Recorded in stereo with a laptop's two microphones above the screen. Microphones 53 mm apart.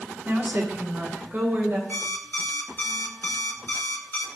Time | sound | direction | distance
0.2 | a woman speaking | 40° right (ahead or behind) | 1.1 m
1.9 | an alarm clock | 40° left (ahead or behind) | 1.0 m